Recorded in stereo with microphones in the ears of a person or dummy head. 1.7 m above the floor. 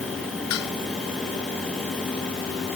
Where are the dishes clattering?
85° left.